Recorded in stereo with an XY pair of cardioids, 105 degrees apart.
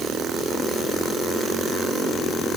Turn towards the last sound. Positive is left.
No sound to turn to.